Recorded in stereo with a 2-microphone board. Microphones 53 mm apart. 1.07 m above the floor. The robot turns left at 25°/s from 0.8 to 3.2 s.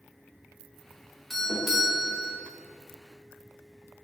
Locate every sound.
1.3 s a doorbell: centre (ahead or behind), 1.4 m; by 2.4 s 20° right (ahead or behind), 1.4 m